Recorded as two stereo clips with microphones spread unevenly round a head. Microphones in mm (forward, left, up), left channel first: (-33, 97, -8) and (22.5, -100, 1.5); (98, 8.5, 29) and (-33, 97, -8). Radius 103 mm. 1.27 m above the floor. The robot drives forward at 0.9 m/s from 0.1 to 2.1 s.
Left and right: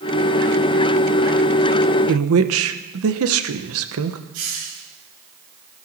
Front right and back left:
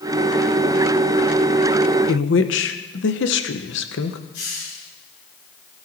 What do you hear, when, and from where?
2.1 s a woman speaking: 55° right, 1.2 m
4.3 s a hiss: 70° right, 8 m